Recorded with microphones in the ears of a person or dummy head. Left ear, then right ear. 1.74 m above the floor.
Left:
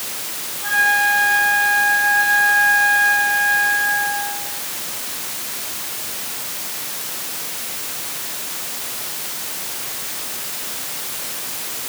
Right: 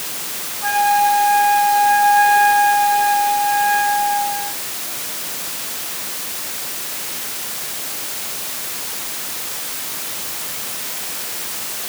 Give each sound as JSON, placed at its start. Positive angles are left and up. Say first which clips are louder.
{"t": 0.6, "sound": "a flute", "louder": "right 1 dB", "side_deg": -50, "distance_m": 7.0}